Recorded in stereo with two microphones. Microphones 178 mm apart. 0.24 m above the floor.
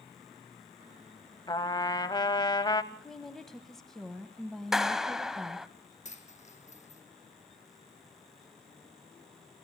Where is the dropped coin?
40° left (ahead or behind), 1.7 m.